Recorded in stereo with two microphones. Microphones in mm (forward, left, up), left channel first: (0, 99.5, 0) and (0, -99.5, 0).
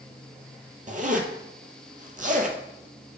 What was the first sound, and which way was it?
A zipper, 45° right (ahead or behind).